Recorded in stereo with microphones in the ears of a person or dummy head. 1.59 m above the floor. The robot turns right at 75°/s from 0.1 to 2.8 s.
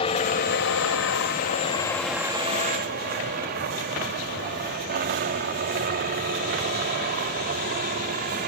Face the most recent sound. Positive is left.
turn(degrees=-45)  # may be behind; listen again after turning